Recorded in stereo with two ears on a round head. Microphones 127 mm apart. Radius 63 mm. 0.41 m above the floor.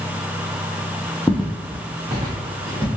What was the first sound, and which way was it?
Footsteps, 5° left (ahead or behind).